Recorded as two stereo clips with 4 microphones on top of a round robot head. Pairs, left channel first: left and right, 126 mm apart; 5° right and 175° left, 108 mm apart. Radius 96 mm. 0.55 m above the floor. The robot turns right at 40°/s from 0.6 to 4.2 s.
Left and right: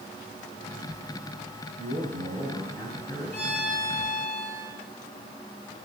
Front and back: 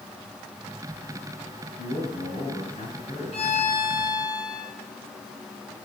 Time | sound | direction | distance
1.8 | a man speaking | 45° right | 4.5 m
3.3 | a violin | 15° left | 4 m